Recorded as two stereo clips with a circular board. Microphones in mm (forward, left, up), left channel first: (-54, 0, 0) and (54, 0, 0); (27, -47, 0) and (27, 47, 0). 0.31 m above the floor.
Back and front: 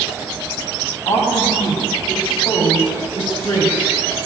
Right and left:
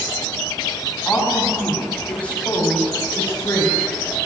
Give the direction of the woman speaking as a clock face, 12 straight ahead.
6 o'clock.